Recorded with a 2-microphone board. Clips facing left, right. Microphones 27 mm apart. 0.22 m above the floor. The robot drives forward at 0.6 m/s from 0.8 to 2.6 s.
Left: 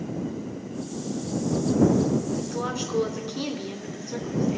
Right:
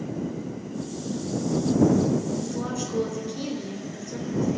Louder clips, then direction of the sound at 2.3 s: Left 1 dB; 30° left (ahead or behind).